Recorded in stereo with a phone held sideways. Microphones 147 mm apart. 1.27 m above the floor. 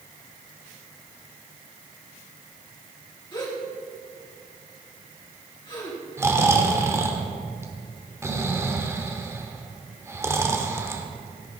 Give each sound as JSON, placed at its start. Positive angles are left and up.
{"t": 3.3, "sound": "a gasp", "side_deg": 30, "distance_m": 2.5}
{"t": 6.2, "sound": "snoring", "side_deg": -15, "distance_m": 1.0}